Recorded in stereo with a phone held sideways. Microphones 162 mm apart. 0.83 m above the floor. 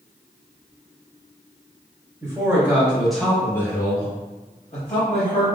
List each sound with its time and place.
2.2 s a man speaking: 20° right (ahead or behind), 1.2 m; by 5.6 s 45° left (ahead or behind), 1.4 m